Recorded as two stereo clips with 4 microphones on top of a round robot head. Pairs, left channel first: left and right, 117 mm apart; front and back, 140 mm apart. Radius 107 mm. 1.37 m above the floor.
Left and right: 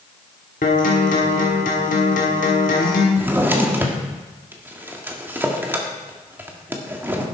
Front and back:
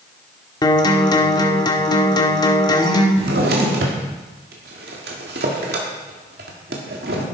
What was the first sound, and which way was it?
A guitar, 55° left.